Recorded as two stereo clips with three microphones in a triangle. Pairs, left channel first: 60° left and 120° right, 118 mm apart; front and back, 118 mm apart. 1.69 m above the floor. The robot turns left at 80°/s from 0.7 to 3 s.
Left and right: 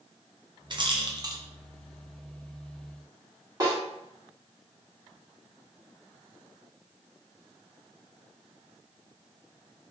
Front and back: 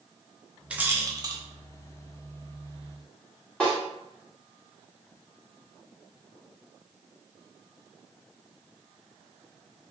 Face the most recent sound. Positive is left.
turn(degrees=-80)